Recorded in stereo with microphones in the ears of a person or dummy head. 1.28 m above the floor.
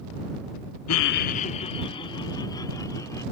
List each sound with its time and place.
0.9 s laughter: 90° left; by 3.2 s 20° left (ahead or behind)